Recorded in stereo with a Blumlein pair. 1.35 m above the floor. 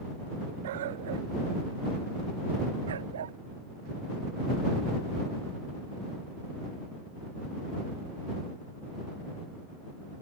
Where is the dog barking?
55° right; by 3.4 s 65° right.